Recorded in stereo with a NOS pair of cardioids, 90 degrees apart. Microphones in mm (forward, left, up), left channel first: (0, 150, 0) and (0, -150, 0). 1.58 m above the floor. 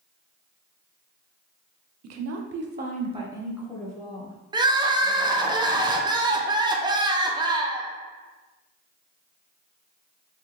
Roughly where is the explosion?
No explosion in this recording.